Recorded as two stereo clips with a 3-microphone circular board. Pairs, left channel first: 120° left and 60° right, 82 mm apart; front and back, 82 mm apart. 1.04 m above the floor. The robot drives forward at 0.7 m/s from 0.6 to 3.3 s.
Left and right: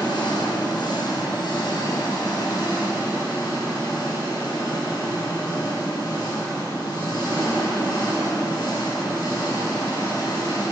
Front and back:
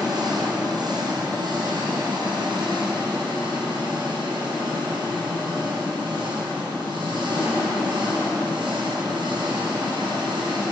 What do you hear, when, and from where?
0.0 s an engine running: 145° left, 5.5 m; by 10.7 s 155° left, 7.5 m